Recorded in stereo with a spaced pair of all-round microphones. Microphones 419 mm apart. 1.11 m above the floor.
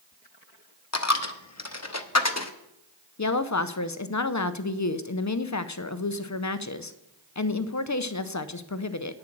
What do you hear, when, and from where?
0.9 s a dropped coin: 35° left (ahead or behind), 0.7 m
3.2 s a woman speaking: 40° left (ahead or behind), 0.6 m